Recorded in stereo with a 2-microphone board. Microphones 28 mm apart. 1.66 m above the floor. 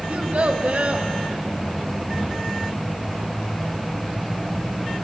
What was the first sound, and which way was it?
A child speaking, 55° right (ahead or behind).